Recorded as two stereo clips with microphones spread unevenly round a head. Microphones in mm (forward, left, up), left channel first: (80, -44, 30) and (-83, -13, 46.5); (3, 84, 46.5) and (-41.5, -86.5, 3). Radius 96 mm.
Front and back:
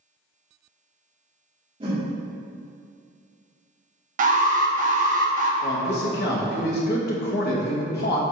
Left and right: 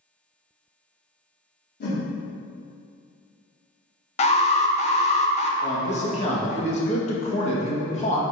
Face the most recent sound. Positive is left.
turn(degrees=20)